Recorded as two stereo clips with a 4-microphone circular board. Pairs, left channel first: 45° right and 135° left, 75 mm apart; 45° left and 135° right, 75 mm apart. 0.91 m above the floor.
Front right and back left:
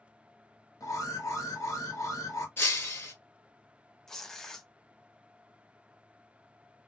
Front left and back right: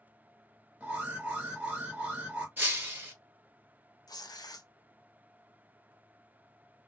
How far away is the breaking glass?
About 1.2 m.